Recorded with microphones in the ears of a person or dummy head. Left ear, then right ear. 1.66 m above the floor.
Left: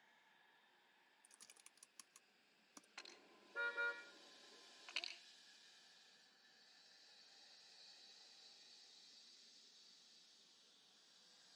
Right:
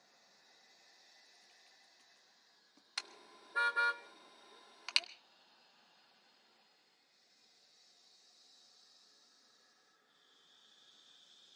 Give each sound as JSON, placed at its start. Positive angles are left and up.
{"t": 1.2, "sound": "typing on a keyboard", "side_deg": 60, "distance_m": 1.0}
{"t": 3.0, "sound": "a car horn", "side_deg": -60, "distance_m": 2.0}